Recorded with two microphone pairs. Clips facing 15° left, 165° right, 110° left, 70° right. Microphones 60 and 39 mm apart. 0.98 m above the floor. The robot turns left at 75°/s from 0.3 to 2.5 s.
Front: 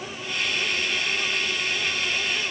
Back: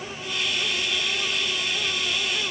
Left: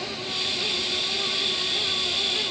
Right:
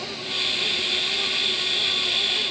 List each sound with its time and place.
Only background noise.